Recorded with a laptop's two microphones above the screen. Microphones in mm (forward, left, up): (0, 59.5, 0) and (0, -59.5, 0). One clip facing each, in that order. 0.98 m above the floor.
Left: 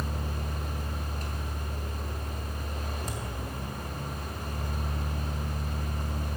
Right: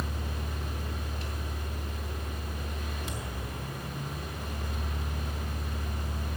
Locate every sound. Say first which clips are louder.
0.0 s a fan: left 2 dB; 45° left (ahead or behind), 2 m